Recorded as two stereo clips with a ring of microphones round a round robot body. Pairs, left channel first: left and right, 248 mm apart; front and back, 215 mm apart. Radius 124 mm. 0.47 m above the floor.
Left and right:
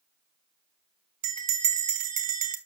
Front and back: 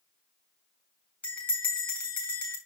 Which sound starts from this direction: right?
A bell, at 1.2 s.